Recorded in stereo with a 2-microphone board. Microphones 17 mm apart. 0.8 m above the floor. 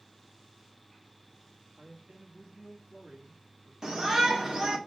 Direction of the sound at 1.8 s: 55° right (ahead or behind).